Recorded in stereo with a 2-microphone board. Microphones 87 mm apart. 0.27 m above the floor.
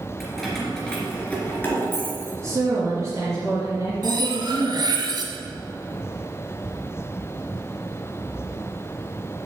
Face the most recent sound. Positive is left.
turn(degrees=-55)  # may be behind; listen again after turning